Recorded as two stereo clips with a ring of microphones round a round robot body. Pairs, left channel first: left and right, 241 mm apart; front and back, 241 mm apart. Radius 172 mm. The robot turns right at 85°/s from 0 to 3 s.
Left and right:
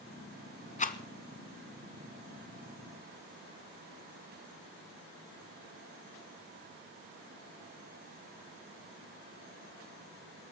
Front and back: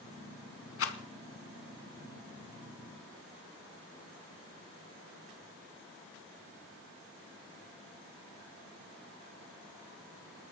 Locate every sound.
0.8 s a rattle: 25° left, 1.0 m; by 1.0 s 45° left, 1.0 m